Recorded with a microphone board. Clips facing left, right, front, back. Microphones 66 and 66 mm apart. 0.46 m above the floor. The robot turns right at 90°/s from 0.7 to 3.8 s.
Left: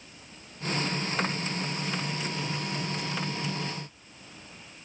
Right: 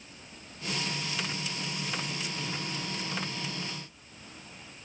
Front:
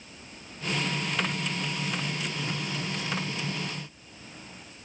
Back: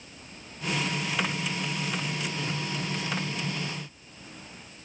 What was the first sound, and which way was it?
Only background noise.